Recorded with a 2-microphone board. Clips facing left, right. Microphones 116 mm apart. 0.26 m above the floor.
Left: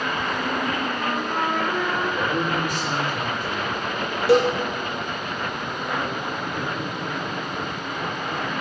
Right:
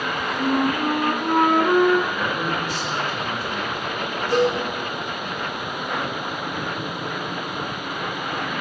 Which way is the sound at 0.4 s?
65° right (ahead or behind).